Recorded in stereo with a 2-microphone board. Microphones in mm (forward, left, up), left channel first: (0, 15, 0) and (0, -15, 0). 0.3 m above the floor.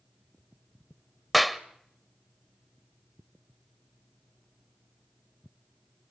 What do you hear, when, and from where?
1.3 s a clap: 5° right (ahead or behind), 0.9 m